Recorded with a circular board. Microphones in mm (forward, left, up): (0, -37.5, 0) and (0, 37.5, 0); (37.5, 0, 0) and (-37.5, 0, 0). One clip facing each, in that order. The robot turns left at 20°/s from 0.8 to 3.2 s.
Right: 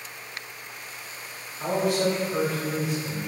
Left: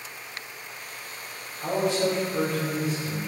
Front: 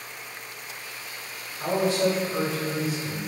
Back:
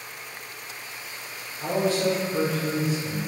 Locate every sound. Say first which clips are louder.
1.6 s a man speaking: right 1 dB, front 1 dB; 65° right, 1.4 m; by 3.2 s 95° right, 1.4 m